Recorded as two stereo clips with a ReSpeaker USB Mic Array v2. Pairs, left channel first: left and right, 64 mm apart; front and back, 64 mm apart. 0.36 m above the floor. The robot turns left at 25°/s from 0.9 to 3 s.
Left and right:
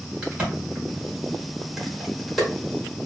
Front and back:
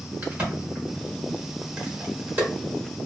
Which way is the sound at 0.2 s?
140° right.